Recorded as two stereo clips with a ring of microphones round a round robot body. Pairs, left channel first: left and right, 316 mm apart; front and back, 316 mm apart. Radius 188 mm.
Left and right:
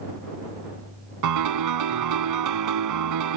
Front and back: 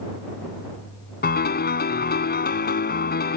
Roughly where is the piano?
Ahead right.